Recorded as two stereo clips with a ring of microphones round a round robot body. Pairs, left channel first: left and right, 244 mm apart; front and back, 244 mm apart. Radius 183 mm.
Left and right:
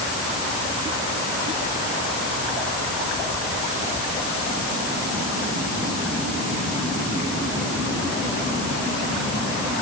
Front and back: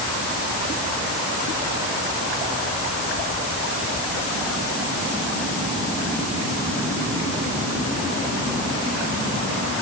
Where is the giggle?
I don't hear a giggle.